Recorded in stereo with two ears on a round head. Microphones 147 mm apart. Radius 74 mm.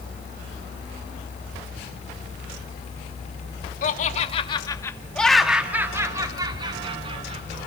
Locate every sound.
3.8 s laughter: 50° left (ahead or behind), 1.8 m; by 7.6 s 40° right (ahead or behind), 3 m